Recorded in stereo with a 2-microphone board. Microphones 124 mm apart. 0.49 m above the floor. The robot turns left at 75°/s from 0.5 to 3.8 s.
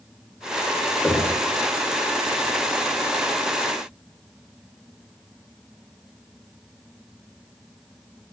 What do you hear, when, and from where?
1.0 s knocking: 10° left (ahead or behind), 0.7 m; by 1.4 s 15° right (ahead or behind), 0.7 m